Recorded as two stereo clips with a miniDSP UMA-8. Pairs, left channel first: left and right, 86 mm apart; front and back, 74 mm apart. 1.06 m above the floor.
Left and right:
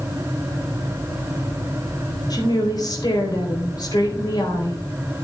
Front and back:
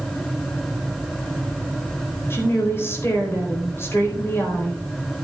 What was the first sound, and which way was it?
A woman speaking, 55° left.